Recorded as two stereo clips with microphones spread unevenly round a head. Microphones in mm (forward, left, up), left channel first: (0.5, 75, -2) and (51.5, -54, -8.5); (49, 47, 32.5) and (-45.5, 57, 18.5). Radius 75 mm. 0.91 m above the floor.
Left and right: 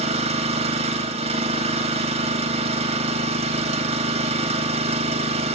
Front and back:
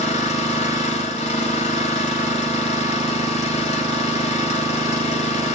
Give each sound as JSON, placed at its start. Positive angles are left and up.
{"t": 0.0, "sound": "an engine running", "azimuth_deg": -25, "distance_m": 3.5}